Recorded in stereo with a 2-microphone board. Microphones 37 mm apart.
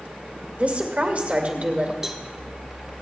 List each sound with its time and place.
0.6 s a woman speaking: 40° right (ahead or behind), 2 m
2.0 s a cowbell: 15° right (ahead or behind), 1.2 m